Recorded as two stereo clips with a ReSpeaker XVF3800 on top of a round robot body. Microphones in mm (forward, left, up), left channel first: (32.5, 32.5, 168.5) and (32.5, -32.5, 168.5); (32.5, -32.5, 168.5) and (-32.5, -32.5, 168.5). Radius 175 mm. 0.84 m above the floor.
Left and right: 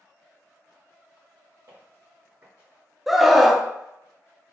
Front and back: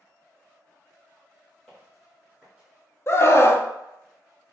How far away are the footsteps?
About 1.6 m.